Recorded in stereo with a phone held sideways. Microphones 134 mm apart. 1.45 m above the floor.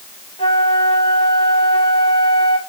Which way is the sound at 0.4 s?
50° left (ahead or behind).